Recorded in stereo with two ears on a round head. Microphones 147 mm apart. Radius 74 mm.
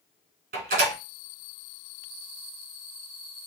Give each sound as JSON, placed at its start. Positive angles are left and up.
{"t": 0.5, "sound": "a door slam", "side_deg": -50, "distance_m": 2.5}